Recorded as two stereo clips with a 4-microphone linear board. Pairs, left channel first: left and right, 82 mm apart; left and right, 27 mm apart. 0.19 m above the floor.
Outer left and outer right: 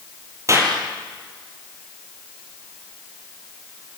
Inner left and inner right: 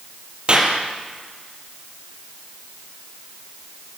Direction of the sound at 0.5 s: 40° right (ahead or behind).